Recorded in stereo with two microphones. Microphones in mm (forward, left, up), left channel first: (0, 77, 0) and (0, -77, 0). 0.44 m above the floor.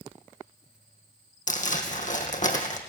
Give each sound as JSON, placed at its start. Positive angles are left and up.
{"t": 1.5, "sound": "crumpling", "side_deg": 55, "distance_m": 3.0}